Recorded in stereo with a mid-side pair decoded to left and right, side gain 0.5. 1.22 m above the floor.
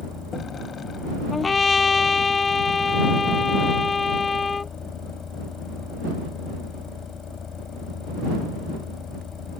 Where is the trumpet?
25° left.